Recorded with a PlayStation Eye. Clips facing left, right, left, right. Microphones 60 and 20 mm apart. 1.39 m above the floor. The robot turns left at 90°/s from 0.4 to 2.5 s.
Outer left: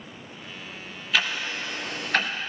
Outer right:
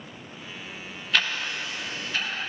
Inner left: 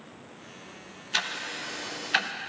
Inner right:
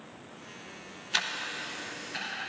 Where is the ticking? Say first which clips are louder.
Even, inner left 1 dB; centre (ahead or behind), 0.6 m; by 2.3 s 60° left (ahead or behind), 0.6 m.